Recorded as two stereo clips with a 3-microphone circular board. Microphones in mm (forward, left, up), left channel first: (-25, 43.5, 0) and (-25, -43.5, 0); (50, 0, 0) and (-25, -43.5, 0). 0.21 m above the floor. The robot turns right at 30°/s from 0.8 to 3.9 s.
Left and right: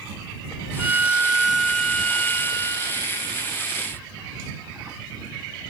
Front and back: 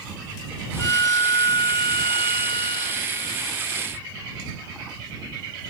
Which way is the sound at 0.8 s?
25° right.